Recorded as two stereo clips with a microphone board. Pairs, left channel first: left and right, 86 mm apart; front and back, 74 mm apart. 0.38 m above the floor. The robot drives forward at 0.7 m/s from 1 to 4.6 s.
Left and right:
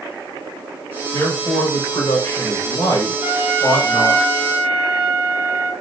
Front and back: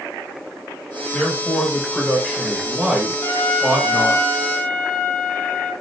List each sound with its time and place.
1.1 s a man speaking: 45° left, 1.7 m; by 4.2 s 145° left, 1.9 m
3.2 s a trumpet: 20° right, 2.5 m; by 5.7 s 35° right, 1.7 m